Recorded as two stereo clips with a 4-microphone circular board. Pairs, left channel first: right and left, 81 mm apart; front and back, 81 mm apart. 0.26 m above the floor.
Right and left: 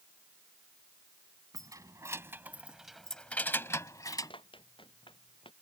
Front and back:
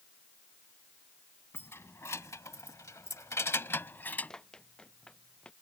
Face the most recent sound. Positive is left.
turn(degrees=-75)